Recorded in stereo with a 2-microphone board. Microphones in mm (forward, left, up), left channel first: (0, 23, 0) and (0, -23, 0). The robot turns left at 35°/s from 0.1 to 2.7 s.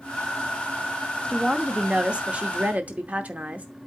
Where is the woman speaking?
20° right, 0.8 m; by 3.7 s 70° right, 0.8 m.